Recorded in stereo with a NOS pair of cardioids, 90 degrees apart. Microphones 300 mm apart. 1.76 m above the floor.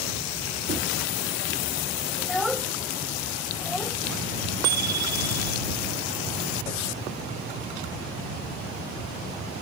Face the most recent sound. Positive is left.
turn(degrees=-55)